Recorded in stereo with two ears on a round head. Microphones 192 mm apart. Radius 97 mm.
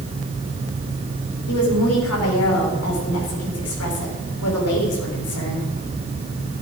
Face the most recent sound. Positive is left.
turn(degrees=85)